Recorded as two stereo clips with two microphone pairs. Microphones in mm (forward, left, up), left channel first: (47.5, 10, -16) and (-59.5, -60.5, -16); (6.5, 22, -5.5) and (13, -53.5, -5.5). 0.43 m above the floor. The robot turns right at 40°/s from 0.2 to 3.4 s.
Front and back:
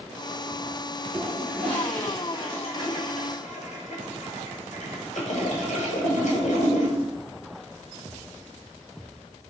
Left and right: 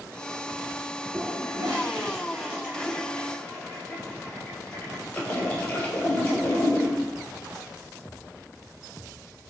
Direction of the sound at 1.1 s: 65° right.